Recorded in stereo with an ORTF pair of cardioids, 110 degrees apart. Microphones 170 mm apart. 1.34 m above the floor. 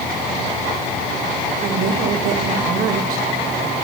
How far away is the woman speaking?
About 4.5 m.